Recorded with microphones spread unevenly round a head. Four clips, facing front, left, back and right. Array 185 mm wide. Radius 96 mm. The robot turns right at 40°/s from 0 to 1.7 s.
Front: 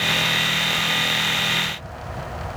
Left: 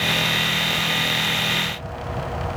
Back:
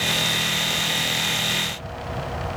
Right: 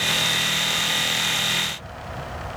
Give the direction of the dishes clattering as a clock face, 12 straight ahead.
I don't hear dishes clattering.